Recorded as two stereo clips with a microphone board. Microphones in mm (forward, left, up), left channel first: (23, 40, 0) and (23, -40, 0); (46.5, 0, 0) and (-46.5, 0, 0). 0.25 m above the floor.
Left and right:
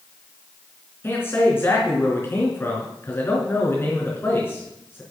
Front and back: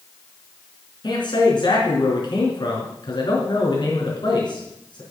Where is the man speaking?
30° left, 3.5 m.